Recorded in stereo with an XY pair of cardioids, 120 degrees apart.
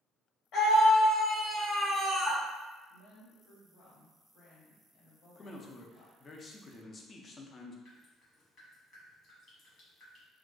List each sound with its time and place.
0.5 s a scream: 65° left, 1.2 m; by 2.4 s 5° right, 0.6 m
2.9 s a woman speaking: 70° left, 1.3 m
5.3 s a man speaking: 30° left, 0.5 m
7.8 s dripping: 55° left, 1.2 m